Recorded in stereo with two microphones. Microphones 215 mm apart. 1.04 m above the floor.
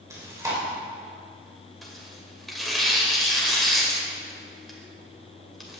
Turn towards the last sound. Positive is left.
turn(degrees=0)  # may be behind; listen again after turning